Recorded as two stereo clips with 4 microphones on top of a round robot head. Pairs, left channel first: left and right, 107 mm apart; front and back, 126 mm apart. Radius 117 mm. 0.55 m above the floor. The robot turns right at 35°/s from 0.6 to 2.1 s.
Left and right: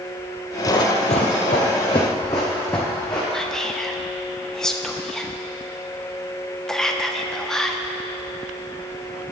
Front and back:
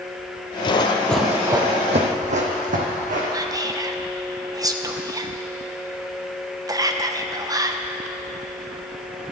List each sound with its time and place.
0.7 s running footsteps: 40° left, 0.9 m; by 3.2 s 165° left, 2.5 m
3.3 s whispering: 170° left, 0.9 m